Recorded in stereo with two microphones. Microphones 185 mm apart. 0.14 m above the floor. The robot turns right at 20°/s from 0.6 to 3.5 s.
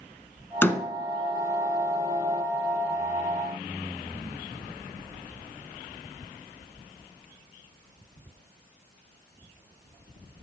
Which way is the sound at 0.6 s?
10° left (ahead or behind).